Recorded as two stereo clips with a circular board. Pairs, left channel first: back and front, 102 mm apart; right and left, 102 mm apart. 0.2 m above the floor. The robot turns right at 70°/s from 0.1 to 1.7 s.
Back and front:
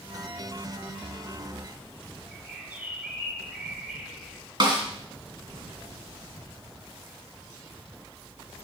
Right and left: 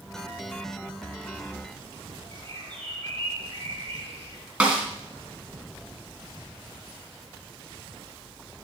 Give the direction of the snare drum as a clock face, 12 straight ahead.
11 o'clock.